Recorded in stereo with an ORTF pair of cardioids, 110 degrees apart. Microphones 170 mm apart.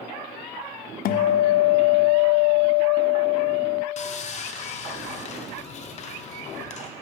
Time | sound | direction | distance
1.1 | a guitar | 65° left | 0.5 m
4.0 | sawing | 45° left | 0.8 m